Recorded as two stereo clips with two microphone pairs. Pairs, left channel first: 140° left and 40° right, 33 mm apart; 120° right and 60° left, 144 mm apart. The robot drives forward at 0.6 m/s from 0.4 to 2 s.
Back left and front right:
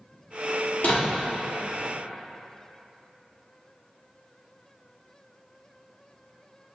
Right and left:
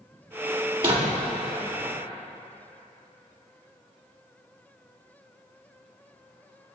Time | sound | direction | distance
0.8 | a door slam | 105° left | 2.0 m